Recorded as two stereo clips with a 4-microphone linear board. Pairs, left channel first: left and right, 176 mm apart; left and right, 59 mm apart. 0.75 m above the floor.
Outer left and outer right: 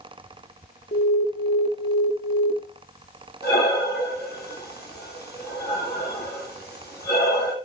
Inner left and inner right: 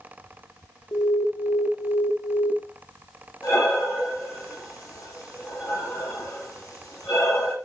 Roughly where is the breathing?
Left.